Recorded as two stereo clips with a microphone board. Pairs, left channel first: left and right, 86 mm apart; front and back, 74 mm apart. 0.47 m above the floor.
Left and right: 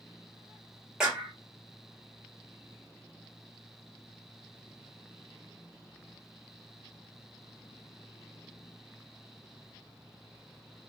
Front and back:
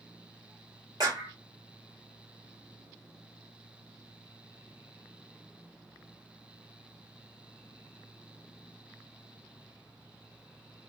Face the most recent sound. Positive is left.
turn(degrees=-170)